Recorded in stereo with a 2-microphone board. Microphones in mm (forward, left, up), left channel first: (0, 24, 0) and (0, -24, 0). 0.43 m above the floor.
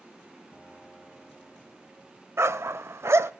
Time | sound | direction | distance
0.5 | a piano | 10° left (ahead or behind) | 2.5 m
2.4 | a dog barking | 70° right (ahead or behind) | 0.5 m